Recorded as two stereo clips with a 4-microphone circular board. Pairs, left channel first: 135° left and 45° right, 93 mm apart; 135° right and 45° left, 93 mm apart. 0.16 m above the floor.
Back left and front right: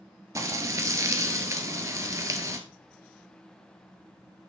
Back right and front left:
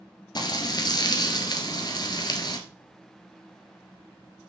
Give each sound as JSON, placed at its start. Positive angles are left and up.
{"t": 0.3, "sound": "frying", "azimuth_deg": -100, "distance_m": 1.5}